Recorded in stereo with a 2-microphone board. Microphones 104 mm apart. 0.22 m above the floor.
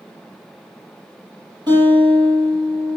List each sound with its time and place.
1.7 s a guitar: 45° right (ahead or behind), 5 m